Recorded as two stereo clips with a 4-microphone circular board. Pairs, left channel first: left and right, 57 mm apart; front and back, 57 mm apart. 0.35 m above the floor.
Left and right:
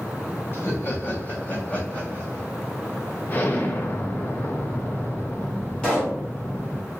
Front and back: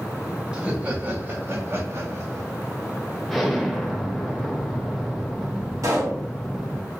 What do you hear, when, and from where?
0.5 s laughter: 110° left, 1.9 m; by 2.5 s 155° left, 2.5 m
3.3 s an explosion: 90° left, 1.0 m
5.8 s a pop: 160° left, 2 m